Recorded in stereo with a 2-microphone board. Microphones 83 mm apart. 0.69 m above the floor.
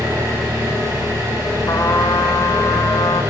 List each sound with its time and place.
0.0 s an engine running: 35° right (ahead or behind), 4.5 m
1.7 s a trumpet: 45° left (ahead or behind), 0.7 m